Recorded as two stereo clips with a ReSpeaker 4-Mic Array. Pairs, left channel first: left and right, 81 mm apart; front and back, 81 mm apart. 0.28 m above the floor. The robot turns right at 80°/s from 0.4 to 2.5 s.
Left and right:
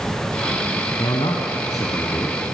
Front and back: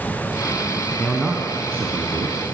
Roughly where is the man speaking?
Ahead left.